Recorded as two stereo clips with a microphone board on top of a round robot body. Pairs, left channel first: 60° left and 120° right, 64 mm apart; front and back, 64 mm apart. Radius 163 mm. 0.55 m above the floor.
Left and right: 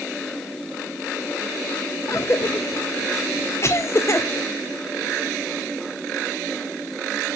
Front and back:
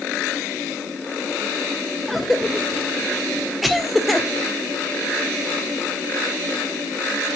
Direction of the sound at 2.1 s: 90° left.